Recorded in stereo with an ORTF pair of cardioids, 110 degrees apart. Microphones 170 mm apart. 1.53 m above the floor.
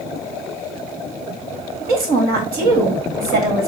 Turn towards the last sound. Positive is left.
turn(degrees=-65)